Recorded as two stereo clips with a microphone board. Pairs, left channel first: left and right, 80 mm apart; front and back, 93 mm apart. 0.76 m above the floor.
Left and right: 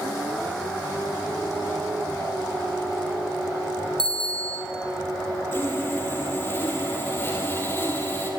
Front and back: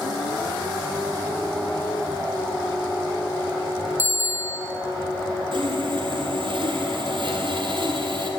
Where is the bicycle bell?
115° right, 3.5 m.